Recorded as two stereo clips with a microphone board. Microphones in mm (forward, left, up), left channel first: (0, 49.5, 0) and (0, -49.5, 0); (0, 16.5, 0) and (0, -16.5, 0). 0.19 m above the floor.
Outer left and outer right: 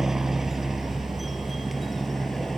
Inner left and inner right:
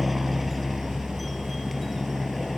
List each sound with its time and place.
0.0 s a helicopter: 5° right (ahead or behind); by 2.6 s centre (ahead or behind)